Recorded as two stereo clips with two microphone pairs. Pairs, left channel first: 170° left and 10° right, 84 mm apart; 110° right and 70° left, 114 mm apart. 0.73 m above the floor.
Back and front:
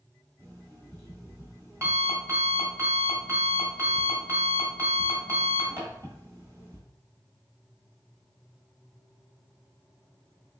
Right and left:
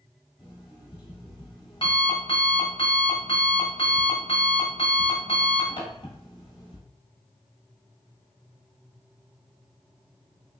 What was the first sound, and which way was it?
An alarm clock, 70° right.